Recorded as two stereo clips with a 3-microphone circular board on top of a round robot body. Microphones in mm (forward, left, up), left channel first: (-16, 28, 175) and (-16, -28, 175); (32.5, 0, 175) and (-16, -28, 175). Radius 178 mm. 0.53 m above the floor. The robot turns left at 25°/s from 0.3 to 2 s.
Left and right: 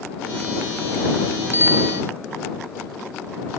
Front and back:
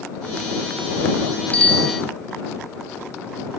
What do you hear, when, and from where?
1.5 s a bicycle bell: 40° right; by 2.0 s 50° right